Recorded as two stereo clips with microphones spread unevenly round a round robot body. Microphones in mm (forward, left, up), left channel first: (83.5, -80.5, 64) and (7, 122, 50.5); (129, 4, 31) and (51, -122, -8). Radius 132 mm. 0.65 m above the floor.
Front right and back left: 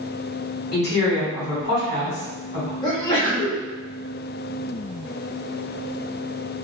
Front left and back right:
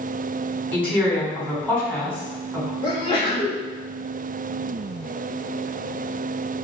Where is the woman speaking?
30° right, 1.9 m.